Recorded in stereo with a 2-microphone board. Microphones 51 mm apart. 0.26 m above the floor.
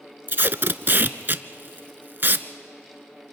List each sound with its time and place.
0.3 s tape being pulled: 45° right (ahead or behind), 0.6 m